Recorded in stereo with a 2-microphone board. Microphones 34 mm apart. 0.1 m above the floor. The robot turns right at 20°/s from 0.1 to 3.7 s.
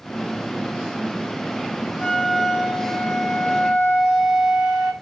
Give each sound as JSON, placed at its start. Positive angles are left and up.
{"t": 2.0, "sound": "a flute", "side_deg": 15, "distance_m": 1.5}